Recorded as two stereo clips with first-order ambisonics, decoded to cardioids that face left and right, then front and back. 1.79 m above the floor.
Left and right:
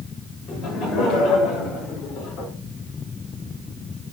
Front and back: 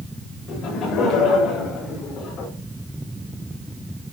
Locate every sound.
0.5 s laughter: 50° left, 8 m; by 2.5 s 55° left, 5 m